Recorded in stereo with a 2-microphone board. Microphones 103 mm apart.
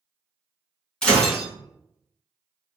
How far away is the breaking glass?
About 1.8 m.